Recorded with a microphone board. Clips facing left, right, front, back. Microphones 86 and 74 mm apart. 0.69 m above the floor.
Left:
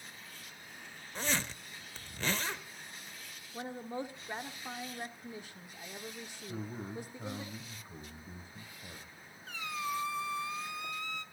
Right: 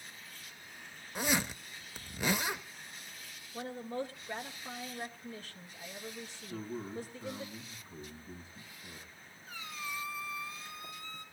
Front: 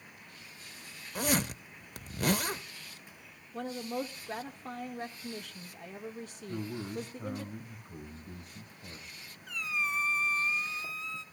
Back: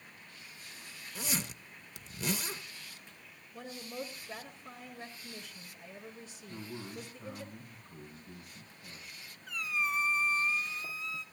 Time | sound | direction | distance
1.1 | a zipper | 15° right | 0.5 m
3.5 | a woman speaking | 20° left | 1.7 m
6.5 | a man speaking | 50° left | 3.5 m
9.5 | a squeak | 90° left | 1.3 m